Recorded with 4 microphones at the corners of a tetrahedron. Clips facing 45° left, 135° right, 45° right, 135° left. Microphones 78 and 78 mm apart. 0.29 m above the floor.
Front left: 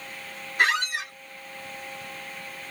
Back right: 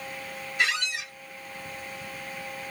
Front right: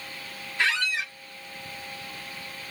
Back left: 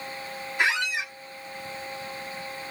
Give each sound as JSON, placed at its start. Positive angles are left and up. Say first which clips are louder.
{"t": 0.6, "sound": "a squeak", "louder": "front left 5 dB, back left 1 dB", "azimuth_deg": 70, "distance_m": 0.6}